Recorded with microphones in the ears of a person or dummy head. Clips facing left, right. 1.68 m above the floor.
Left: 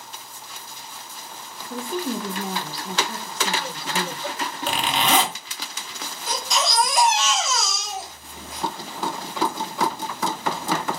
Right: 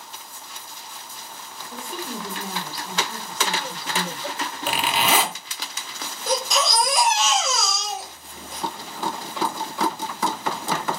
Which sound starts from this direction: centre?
A zipper, at 4.7 s.